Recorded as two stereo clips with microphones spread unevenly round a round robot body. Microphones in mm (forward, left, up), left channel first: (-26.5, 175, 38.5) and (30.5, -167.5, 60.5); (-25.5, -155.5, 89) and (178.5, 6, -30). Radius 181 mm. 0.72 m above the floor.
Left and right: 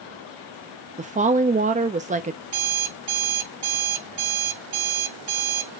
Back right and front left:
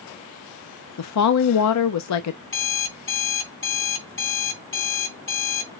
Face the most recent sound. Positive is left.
turn(degrees=-100)